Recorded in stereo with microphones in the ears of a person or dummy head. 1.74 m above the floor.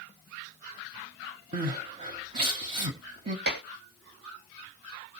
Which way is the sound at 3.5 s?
70° right (ahead or behind).